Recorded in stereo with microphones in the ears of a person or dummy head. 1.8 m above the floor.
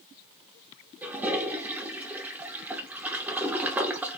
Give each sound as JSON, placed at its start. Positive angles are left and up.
{"t": 1.0, "sound": "a toilet flushing", "side_deg": -5, "distance_m": 0.8}